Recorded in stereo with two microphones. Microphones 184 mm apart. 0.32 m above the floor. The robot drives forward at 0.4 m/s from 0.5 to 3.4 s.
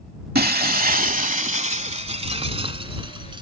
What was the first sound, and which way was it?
Breaking glass, 60° right (ahead or behind).